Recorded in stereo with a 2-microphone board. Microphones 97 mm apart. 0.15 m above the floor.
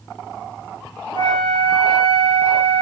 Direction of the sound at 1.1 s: 55° left (ahead or behind).